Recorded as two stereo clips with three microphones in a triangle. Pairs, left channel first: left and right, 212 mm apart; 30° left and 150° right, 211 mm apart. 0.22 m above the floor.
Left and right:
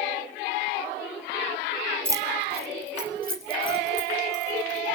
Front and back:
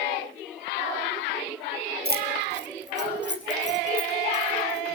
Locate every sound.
2.0 s keys jangling: 165° right, 1.3 m; by 5.0 s 120° right, 4 m